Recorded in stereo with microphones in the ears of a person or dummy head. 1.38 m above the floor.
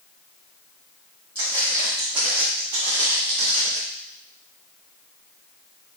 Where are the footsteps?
10° left (ahead or behind), 2 m; by 3.8 s 35° right (ahead or behind), 1.8 m.